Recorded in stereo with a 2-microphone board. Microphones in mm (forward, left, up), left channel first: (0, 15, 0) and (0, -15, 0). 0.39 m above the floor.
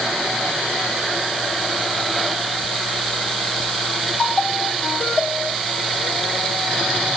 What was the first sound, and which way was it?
Only background noise.